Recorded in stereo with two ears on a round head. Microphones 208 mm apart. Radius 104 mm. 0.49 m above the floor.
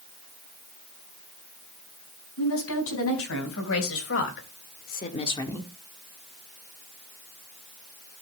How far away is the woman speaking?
About 5 m.